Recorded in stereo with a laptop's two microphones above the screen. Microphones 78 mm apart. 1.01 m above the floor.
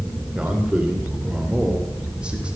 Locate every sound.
0.3 s a man speaking: 15° right (ahead or behind), 3 m